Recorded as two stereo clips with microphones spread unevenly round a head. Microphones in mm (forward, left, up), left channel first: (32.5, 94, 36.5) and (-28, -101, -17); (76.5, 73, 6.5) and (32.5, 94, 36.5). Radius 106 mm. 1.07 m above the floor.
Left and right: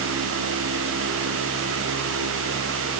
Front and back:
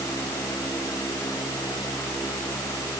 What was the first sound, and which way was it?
Only background noise.